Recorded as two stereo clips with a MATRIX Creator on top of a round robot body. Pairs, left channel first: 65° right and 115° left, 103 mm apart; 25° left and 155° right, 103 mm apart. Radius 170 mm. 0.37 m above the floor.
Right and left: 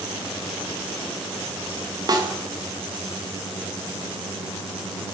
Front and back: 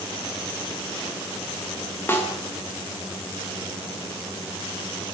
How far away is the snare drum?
About 1.8 m.